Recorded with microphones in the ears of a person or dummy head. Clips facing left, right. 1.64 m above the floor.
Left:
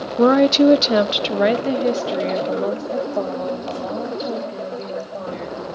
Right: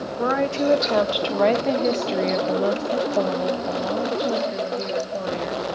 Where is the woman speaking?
65° left (ahead or behind), 0.8 m; by 5.6 s 25° right (ahead or behind), 3 m.